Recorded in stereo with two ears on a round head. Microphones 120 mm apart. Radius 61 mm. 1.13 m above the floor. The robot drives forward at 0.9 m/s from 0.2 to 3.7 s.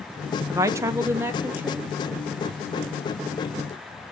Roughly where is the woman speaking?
Right.